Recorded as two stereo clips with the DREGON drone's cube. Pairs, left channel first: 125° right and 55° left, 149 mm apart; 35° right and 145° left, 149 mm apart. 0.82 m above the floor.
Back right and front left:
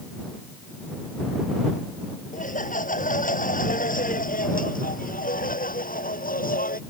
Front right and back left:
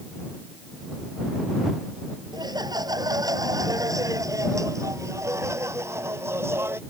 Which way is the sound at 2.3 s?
150° right.